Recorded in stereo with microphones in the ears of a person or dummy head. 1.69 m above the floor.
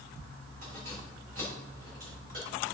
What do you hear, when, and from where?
0.6 s keys jangling: 50° right (ahead or behind), 3.5 m